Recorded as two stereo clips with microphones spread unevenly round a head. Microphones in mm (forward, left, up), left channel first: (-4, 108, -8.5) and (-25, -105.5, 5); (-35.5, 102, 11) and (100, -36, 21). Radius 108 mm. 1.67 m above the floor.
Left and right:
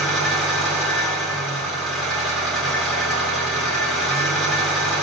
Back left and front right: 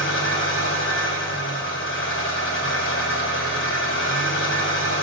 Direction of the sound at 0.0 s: 175° left.